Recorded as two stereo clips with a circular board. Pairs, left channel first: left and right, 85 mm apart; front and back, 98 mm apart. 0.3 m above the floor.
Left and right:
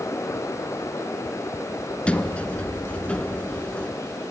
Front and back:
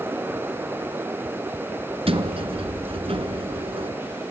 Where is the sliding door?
165° left, 1.7 m.